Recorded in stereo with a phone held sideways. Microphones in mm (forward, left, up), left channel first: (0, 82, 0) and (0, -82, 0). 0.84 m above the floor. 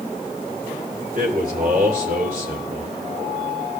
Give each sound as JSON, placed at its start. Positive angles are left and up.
{"t": 1.1, "sound": "a man speaking", "side_deg": -60, "distance_m": 3.0}